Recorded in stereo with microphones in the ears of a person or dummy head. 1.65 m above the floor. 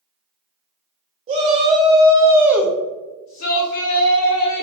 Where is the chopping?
I don't hear chopping.